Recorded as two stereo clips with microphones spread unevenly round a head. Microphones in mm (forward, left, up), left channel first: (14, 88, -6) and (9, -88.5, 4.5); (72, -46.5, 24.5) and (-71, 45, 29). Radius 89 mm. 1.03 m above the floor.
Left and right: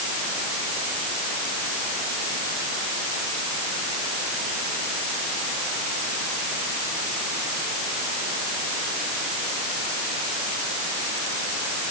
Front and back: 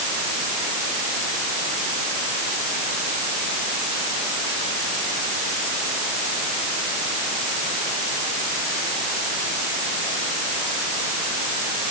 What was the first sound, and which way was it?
Only background noise.